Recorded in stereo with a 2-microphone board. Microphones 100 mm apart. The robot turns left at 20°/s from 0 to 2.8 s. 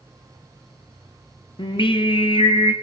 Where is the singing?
55° left (ahead or behind), 0.6 m; by 2.7 s 60° left (ahead or behind), 0.6 m.